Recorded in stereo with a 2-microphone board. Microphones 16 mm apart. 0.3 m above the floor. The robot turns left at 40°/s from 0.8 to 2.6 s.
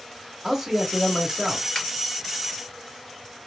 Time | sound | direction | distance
0.4 | a man speaking | 10° right | 1.0 m
1.8 | a finger snap | 55° left (ahead or behind) | 3 m